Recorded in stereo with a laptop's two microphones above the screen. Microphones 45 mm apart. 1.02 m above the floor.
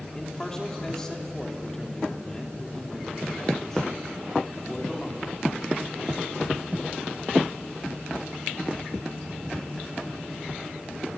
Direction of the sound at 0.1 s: 15° left (ahead or behind).